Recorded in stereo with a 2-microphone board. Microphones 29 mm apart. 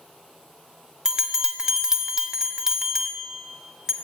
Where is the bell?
20° right (ahead or behind), 0.9 m.